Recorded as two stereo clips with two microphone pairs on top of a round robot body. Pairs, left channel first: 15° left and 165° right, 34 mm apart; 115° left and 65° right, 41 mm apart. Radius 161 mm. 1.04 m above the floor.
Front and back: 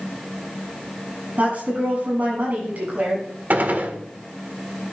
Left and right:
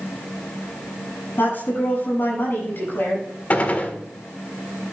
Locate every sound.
1.4 s a woman speaking: 155° left, 7 m
3.5 s a gunshot: 170° left, 1.6 m